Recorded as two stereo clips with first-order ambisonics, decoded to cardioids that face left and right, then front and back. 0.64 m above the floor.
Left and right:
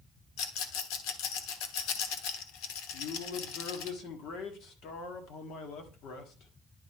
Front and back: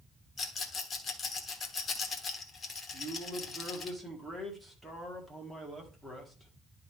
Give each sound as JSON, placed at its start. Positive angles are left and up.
{"t": 0.4, "sound": "a rattle", "azimuth_deg": 70, "distance_m": 1.1}
{"t": 2.9, "sound": "a man speaking", "azimuth_deg": 95, "distance_m": 1.5}